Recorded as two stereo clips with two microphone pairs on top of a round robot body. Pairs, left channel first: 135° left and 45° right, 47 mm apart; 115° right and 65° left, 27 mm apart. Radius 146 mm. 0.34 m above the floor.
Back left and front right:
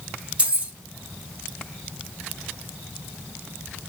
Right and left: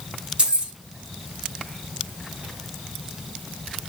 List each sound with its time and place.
0.4 s keys jangling: 15° left, 3 m